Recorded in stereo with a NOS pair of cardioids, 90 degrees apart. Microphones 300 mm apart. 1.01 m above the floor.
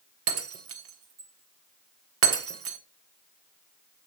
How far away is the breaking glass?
About 1.4 m.